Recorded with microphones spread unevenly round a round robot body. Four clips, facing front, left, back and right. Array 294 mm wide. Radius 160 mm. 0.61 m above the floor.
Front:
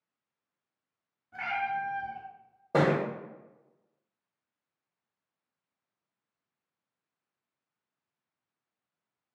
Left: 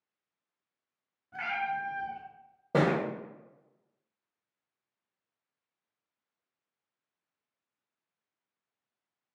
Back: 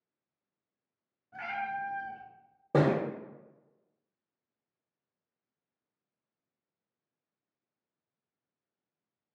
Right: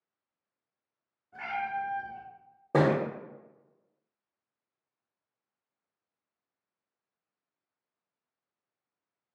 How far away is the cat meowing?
About 1.9 m.